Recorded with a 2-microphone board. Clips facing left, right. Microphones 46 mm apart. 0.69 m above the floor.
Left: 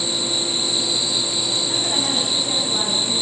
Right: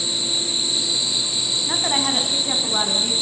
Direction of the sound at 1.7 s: 35° right (ahead or behind).